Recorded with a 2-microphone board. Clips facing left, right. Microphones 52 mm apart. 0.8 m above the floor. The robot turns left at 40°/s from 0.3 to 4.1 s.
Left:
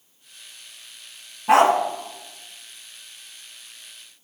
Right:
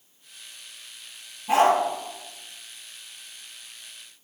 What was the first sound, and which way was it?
A dog barking, 75° left (ahead or behind).